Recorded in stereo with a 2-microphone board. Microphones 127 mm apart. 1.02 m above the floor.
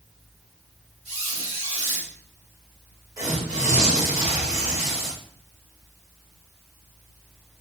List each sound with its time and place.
1.1 s a squeak: 55° right (ahead or behind), 2 m
3.2 s tearing paper: 25° right (ahead or behind), 2 m